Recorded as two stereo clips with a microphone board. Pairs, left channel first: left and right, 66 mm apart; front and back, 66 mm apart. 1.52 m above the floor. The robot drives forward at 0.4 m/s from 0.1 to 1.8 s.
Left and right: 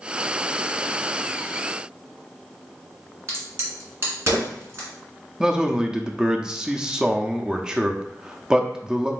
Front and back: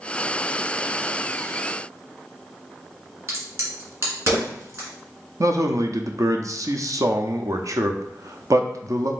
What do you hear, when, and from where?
3.3 s a crack: 140° right, 1.6 m
5.4 s a man speaking: 170° right, 0.5 m